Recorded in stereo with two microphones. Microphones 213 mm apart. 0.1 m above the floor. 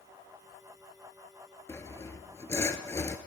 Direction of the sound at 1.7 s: 15° left (ahead or behind).